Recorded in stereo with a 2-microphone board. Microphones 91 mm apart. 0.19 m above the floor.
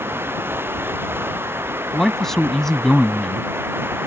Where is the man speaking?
5° left (ahead or behind).